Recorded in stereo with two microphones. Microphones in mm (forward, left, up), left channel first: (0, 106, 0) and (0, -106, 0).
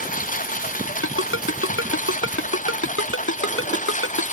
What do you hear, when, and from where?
0.0 s a lawn mower: 40° left (ahead or behind); by 4.3 s 35° left (ahead or behind)
1.0 s a ringtone: 80° left